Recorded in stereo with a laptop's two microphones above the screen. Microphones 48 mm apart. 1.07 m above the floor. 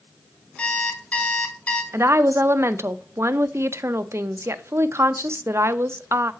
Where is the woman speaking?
60° right (ahead or behind), 0.6 m.